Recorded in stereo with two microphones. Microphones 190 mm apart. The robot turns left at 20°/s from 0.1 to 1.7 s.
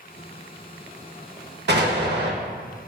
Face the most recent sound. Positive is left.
turn(degrees=-65)  # may be behind; listen again after turning